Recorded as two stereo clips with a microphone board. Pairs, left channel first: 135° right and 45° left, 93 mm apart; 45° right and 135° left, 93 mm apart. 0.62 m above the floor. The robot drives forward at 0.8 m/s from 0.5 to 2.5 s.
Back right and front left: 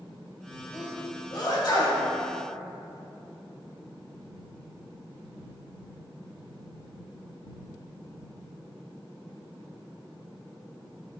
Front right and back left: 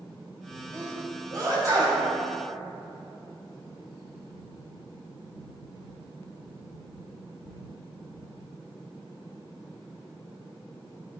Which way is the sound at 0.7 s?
175° right.